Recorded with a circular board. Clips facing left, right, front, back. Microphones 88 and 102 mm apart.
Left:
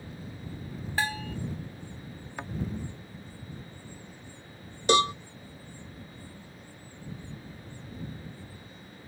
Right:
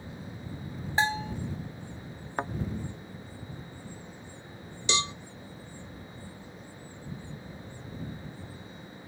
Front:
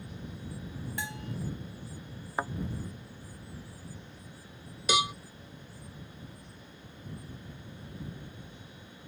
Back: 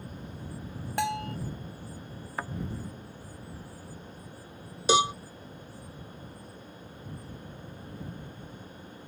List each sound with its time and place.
1.0 s a bell: 155° right
2.4 s a thud: 60° right
4.9 s a cowbell: 125° left